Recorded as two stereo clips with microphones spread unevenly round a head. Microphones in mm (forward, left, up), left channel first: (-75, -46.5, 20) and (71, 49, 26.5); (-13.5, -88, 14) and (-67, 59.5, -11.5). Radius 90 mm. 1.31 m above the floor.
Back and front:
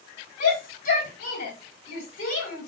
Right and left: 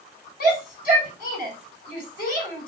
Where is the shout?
100° right, 3.5 m.